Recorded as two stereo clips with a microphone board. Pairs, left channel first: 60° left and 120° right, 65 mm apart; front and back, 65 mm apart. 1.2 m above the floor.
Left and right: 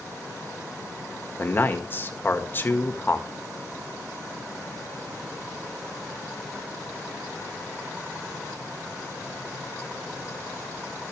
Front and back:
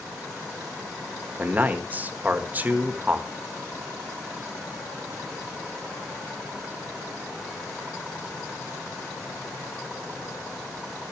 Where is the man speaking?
120° left, 1.8 m.